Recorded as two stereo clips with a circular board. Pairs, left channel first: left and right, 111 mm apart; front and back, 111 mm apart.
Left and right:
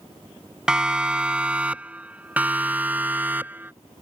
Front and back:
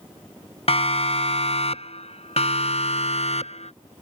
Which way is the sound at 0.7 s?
10° right.